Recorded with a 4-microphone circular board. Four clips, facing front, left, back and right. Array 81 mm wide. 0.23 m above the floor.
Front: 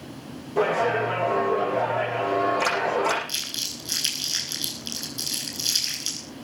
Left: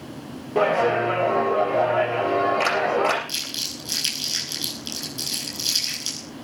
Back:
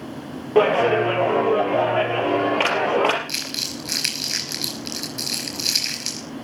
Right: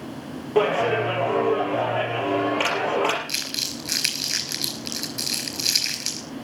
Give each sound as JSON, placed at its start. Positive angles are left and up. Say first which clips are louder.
{"t": 0.6, "sound": "a clap", "louder": "left 1 dB, back 6 dB", "azimuth_deg": -175, "distance_m": 5.5}
{"t": 3.3, "sound": "crumpling", "louder": "right 2 dB, back 6 dB", "azimuth_deg": -135, "distance_m": 5.0}